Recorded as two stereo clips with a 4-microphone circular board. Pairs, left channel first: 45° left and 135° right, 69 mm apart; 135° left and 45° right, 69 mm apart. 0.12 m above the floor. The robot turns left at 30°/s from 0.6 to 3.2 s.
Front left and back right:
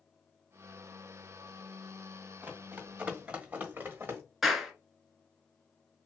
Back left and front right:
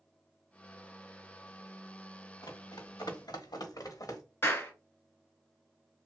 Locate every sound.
2.4 s running footsteps: 160° left, 1.3 m; by 4.2 s 170° left, 1.6 m
4.4 s a clap: 140° left, 1.2 m